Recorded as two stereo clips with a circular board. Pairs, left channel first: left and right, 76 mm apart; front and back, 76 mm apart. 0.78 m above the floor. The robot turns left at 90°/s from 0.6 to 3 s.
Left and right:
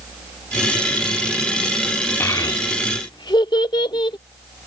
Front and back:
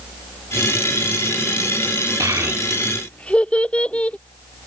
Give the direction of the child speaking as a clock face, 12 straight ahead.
7 o'clock.